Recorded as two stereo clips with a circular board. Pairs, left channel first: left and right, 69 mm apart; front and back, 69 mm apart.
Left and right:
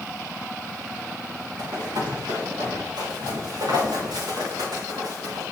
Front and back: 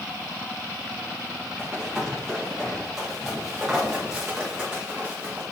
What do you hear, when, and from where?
1.6 s running footsteps: 80° right, 4 m; by 5.4 s 105° right, 4.5 m